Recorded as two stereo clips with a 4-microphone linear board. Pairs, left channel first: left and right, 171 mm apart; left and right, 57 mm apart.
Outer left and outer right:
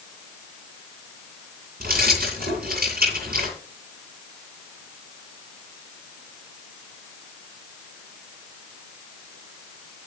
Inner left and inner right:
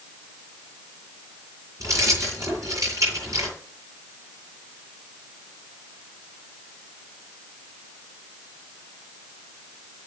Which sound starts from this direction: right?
Keys jangling, at 1.8 s.